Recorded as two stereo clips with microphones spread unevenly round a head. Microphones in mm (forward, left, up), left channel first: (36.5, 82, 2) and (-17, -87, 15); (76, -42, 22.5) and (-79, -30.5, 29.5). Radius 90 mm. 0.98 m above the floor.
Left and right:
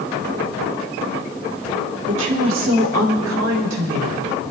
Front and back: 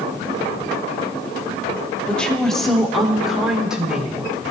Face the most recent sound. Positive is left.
turn(degrees=-100)